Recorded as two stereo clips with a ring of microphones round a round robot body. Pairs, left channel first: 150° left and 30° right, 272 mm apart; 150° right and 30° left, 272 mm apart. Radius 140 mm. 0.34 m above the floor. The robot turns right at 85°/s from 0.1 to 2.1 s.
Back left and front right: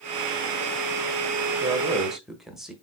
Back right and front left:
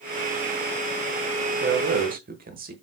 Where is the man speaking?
15° left, 1.0 m; by 2.7 s 60° left, 1.0 m.